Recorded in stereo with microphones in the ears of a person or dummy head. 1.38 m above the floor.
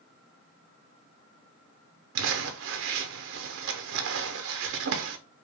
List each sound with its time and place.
2.1 s crumpling: 65° right (ahead or behind), 0.5 m